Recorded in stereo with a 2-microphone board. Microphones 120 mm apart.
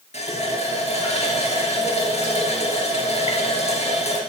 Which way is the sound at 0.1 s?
70° left (ahead or behind).